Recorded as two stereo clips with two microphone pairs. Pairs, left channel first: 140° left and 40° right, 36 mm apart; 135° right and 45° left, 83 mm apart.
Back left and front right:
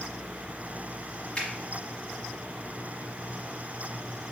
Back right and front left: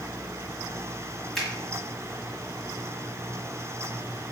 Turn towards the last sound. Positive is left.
turn(degrees=140)